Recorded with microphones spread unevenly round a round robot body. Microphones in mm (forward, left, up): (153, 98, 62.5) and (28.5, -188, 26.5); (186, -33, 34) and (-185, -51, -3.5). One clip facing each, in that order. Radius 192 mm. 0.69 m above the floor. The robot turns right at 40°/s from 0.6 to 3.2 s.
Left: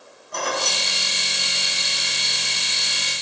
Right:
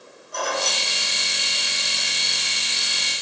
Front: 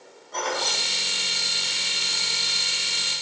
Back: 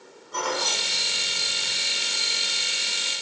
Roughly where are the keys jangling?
Left.